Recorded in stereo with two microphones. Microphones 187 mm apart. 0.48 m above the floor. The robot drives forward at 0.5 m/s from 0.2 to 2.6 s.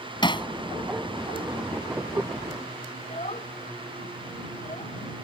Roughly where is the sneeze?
I don't hear a sneeze.